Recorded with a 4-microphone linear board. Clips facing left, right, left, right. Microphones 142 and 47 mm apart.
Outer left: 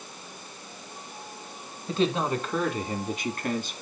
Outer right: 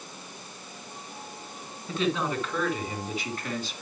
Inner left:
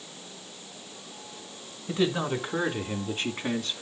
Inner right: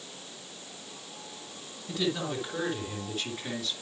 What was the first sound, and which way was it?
A man speaking, 35° left (ahead or behind).